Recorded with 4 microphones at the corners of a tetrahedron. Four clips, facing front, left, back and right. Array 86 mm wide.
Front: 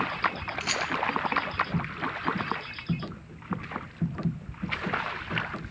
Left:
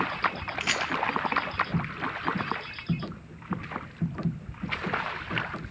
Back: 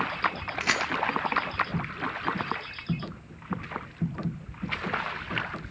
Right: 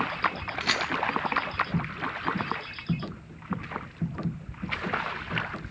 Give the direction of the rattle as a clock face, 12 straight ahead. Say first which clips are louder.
Right 1 dB, back 4 dB; 5 o'clock.